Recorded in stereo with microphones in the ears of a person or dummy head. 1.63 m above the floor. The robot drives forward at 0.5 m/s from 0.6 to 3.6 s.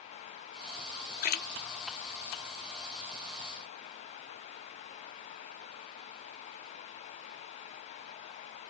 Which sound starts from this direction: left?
A splash, at 1.2 s.